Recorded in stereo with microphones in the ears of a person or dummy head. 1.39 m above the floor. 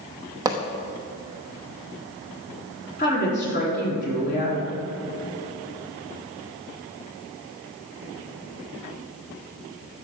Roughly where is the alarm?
No alarm in this recording.